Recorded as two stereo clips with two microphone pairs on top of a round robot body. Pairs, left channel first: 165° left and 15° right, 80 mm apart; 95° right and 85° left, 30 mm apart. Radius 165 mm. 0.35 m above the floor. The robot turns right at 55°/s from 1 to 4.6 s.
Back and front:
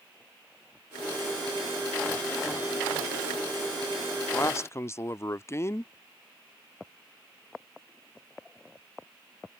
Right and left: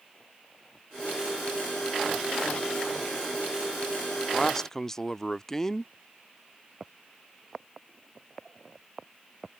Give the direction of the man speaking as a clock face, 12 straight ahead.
6 o'clock.